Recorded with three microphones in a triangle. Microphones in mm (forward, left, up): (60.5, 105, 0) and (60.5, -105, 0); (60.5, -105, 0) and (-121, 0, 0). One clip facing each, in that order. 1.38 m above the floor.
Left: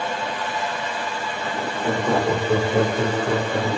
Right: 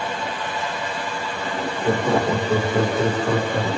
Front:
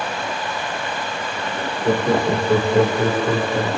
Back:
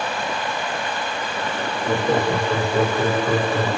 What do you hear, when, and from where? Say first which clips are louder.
1.9 s laughter: right 1 dB, front 3 dB; 15° right, 0.7 m; by 3.7 s 30° left, 2.5 m